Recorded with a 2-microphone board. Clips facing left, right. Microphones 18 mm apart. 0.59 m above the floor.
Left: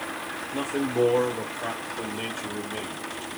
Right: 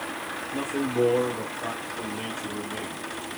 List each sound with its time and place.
0.5 s a man speaking: 20° left (ahead or behind), 1.0 m